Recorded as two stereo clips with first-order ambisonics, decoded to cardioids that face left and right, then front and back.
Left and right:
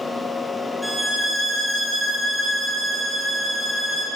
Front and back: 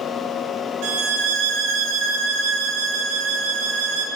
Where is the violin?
Straight behind, 1.0 m.